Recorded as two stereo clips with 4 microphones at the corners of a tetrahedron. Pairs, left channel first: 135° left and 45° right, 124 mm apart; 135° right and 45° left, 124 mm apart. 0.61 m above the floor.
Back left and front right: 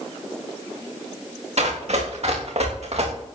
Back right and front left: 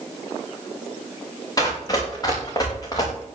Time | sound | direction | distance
1.6 | running footsteps | 75° right | 6.5 m